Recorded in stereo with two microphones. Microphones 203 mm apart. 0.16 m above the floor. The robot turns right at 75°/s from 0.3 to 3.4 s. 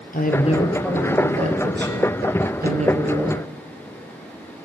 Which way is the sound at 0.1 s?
135° left.